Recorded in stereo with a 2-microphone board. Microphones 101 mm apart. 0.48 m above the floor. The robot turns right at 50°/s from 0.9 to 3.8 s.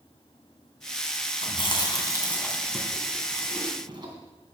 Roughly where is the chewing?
Left.